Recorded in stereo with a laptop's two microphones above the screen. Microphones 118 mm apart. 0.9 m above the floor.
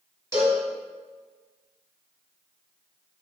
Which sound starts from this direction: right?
A cowbell, at 0.3 s.